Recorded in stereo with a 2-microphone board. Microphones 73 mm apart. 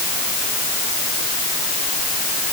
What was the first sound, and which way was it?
Only background noise.